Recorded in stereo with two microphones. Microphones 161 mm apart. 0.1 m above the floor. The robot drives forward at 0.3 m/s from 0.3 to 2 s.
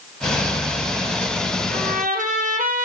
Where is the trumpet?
60° right (ahead or behind), 1.3 m.